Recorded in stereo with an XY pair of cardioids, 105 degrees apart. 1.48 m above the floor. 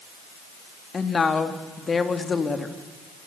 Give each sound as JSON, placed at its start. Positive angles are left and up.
{"t": 0.9, "sound": "a woman speaking", "azimuth_deg": 30, "distance_m": 2.5}